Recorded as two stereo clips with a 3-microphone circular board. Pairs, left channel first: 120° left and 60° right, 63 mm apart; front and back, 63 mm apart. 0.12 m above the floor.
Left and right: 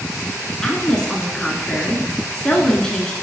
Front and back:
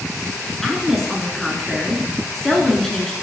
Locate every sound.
0.6 s a woman speaking: 70° left, 1.1 m